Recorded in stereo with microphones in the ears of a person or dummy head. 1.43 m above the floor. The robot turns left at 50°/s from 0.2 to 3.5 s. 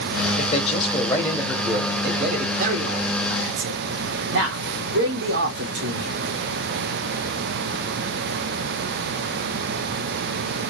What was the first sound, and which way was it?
A man speaking, 60° left.